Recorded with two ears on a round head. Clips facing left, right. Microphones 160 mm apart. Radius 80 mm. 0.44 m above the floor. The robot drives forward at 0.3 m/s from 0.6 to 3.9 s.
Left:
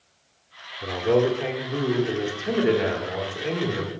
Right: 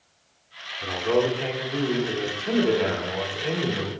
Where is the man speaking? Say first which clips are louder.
Left 2 dB; 10° left (ahead or behind), 1.3 m.